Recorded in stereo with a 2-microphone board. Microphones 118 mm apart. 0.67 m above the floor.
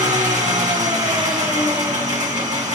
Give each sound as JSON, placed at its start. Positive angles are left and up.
{"t": 0.0, "sound": "an engine running", "side_deg": -65, "distance_m": 1.3}